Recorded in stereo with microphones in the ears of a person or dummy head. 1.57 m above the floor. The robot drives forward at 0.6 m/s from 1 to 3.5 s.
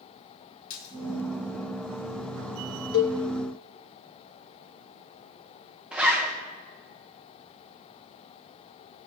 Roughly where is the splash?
Left.